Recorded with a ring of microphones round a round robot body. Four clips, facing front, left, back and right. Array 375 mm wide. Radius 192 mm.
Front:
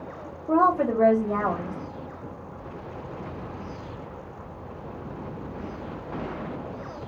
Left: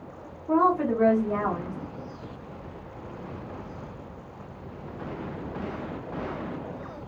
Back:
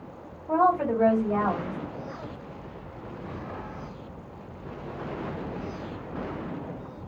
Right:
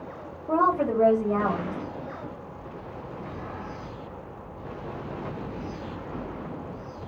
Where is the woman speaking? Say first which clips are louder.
Left 1 dB, front 2 dB; 30° right, 1.1 m.